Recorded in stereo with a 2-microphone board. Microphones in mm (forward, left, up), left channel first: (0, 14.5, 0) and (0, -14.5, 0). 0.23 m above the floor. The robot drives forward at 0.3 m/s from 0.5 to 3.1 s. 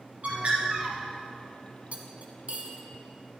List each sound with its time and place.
0.2 s a bird: 55° right (ahead or behind), 3 m
1.9 s cutlery clinking: 55° right (ahead or behind), 1.0 m; by 2.8 s 50° right (ahead or behind), 1.1 m